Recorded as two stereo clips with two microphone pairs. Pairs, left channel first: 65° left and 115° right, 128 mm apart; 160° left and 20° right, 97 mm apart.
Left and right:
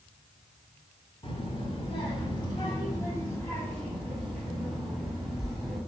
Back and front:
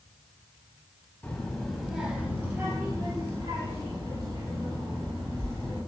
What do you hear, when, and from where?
1.2 s a child speaking: 85° left, 1.3 m; by 5.8 s 25° right, 2.5 m